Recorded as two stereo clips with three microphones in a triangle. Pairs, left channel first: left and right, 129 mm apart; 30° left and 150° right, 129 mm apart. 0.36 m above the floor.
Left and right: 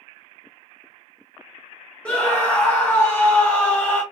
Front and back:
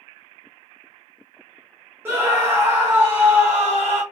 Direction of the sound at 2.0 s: 160° left.